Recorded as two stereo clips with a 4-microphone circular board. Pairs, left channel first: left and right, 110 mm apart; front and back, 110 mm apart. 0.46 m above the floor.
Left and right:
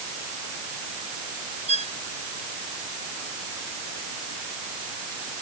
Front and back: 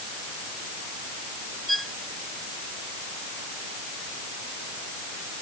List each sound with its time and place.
1.7 s a violin: 90° right